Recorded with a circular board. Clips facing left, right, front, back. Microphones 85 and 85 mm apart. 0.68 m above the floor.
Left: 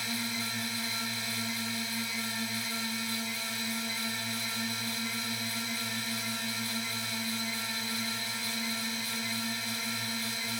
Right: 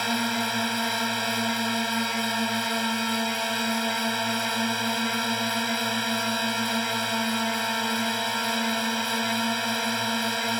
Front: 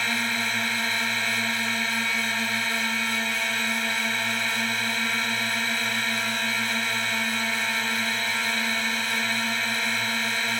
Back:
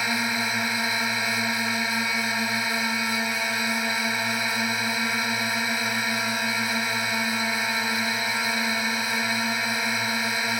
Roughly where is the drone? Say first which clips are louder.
Right 10 dB, back 1 dB; right.